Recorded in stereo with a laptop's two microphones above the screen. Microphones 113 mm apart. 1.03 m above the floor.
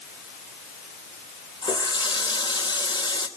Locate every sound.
1.6 s a running tap: 45° left (ahead or behind), 2.5 m